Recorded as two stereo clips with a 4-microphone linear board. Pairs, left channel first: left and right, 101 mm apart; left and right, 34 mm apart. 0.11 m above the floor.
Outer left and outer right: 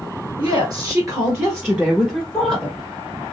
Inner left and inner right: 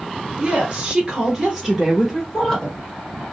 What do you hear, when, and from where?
0.4 s a woman speaking: 45° right (ahead or behind), 1.8 m; by 2.8 s 10° left (ahead or behind), 1.3 m